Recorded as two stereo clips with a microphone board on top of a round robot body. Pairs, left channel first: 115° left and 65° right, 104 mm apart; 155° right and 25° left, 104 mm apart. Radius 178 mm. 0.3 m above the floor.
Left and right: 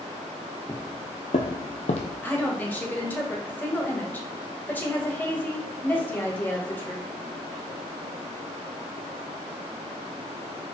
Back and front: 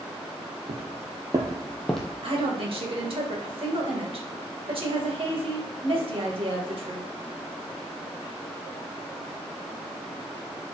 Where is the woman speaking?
40° left, 2.5 m.